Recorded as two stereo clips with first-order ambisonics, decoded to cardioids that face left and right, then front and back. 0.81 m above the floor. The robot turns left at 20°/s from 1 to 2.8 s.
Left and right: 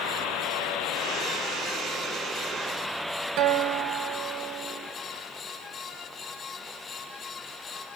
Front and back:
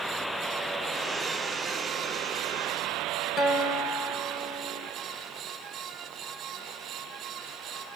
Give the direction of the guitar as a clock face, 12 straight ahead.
2 o'clock.